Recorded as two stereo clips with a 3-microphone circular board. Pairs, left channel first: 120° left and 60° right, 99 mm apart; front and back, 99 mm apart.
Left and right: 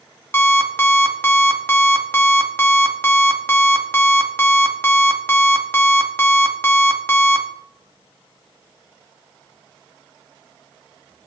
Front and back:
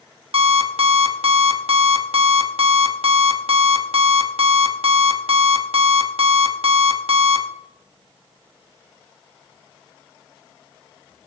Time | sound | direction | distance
0.3 | an alarm clock | 175° right | 1.1 m